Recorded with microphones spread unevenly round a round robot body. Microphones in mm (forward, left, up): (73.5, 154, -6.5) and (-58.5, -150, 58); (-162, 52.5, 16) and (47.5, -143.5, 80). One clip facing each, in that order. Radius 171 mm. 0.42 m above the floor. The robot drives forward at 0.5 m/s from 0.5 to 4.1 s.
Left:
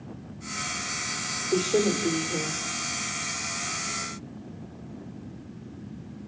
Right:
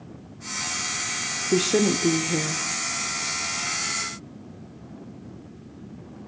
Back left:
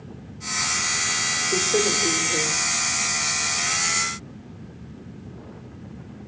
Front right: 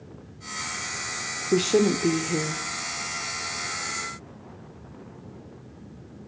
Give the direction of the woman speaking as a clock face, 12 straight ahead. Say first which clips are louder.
Right 2 dB, front right 4 dB; 2 o'clock.